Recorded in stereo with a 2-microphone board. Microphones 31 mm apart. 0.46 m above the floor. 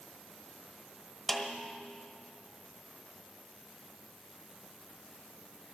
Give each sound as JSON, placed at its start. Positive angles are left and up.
{"t": 1.3, "sound": "a snare drum", "side_deg": 0, "distance_m": 1.0}